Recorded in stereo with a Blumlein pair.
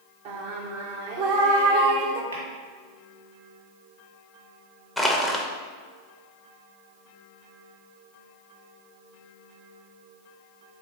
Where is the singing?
45° right, 0.6 m.